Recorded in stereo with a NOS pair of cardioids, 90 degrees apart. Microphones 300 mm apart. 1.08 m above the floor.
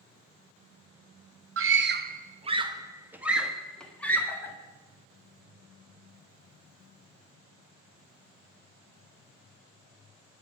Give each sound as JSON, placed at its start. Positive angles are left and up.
{"t": 1.6, "sound": "a scream", "azimuth_deg": -50, "distance_m": 0.9}